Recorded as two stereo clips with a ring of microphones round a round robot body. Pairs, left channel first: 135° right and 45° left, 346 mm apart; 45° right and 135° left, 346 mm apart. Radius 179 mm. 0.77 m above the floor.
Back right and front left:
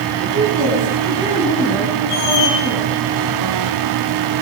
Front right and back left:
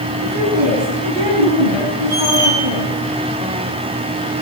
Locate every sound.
0.2 s a woman speaking: 120° left, 7 m; by 2.9 s 130° left, 10 m
2.1 s a squeak: 160° right, 4.5 m